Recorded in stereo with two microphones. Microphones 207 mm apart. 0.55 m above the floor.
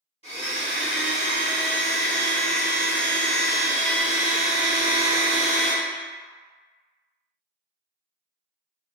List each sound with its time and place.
0.2 s a blender: 30° left (ahead or behind), 1.2 m